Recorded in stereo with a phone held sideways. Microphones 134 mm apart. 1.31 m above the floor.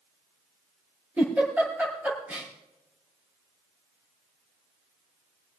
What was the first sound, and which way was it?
A giggle, 15° right (ahead or behind).